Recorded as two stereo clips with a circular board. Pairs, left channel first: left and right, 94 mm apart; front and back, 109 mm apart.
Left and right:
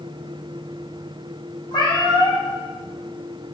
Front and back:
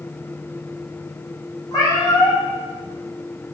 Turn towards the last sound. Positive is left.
turn(degrees=55)